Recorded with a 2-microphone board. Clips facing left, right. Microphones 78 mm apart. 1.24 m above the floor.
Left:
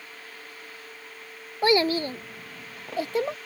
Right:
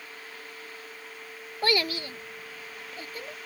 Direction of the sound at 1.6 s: 20° left (ahead or behind).